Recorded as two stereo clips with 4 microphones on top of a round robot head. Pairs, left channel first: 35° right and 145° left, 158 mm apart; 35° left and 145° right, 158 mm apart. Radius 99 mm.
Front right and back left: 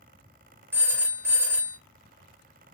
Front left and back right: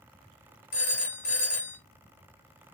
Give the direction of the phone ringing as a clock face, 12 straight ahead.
10 o'clock.